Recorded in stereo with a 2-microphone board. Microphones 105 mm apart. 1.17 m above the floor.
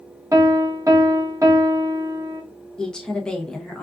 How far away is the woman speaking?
About 0.7 m.